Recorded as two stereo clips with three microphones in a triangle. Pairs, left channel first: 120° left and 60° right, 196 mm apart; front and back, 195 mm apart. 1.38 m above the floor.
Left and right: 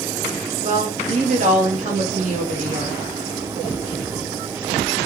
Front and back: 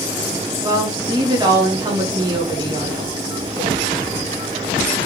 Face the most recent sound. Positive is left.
turn(degrees=-110)